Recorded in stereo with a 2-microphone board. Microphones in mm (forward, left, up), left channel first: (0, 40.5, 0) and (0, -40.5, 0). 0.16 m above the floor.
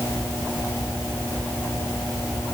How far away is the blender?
I don't hear a blender.